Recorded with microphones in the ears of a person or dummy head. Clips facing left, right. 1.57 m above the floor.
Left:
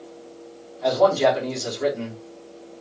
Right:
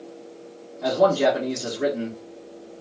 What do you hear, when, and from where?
0.8 s a man speaking: 55° right (ahead or behind), 2.5 m